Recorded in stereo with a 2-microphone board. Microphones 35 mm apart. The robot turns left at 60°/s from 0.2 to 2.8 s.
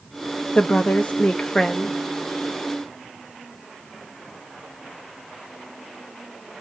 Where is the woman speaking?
95° left, 0.5 m; by 2.0 s 10° left, 0.5 m.